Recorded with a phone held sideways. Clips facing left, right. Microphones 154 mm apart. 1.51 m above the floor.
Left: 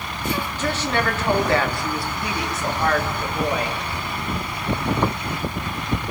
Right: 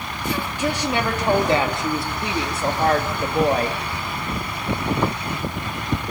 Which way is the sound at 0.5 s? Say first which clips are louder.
Right 2 dB; 10° right (ahead or behind).